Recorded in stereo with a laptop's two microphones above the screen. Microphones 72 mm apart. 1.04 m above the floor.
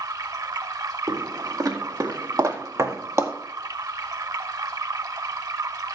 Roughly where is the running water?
Right.